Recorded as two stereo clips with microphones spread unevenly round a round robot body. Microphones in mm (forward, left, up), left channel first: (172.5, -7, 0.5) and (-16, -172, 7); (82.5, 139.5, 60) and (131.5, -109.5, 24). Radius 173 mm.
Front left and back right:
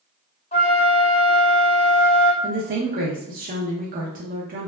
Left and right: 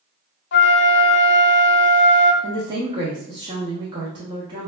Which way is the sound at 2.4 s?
120° right.